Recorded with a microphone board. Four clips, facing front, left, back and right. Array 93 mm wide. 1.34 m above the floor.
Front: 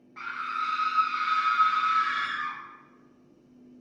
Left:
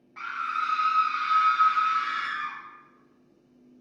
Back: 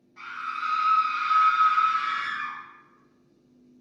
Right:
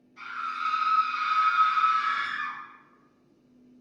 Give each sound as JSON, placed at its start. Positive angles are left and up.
{"t": 0.2, "sound": "a scream", "azimuth_deg": 60, "distance_m": 0.7}